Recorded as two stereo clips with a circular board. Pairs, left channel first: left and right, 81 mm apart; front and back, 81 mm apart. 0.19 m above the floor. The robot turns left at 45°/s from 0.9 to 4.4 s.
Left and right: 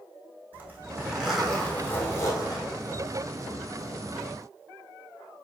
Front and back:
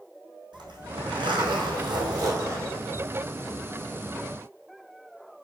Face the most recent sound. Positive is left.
turn(degrees=45)